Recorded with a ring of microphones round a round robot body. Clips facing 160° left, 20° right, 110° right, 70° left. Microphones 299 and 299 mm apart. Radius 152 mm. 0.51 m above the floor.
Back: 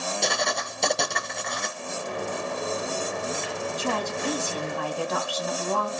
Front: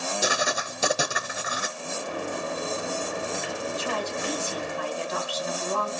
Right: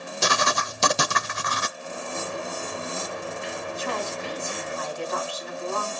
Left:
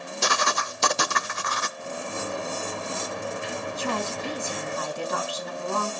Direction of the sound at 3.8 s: 120° left.